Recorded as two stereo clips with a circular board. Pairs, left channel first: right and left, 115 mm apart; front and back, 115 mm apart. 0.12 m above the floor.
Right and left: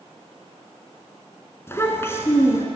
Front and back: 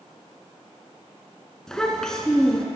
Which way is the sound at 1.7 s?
75° right.